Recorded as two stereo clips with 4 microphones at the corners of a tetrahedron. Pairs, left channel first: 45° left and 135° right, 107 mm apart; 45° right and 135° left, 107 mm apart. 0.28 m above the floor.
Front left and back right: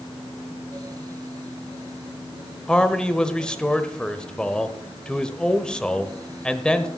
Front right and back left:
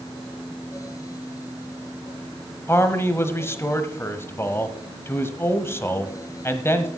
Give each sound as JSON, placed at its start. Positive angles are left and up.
{"t": 2.7, "sound": "a man speaking", "azimuth_deg": -25, "distance_m": 1.0}